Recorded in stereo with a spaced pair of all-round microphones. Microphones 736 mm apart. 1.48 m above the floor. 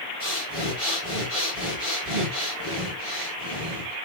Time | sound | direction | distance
0.2 | breathing | 15° left (ahead or behind) | 5 m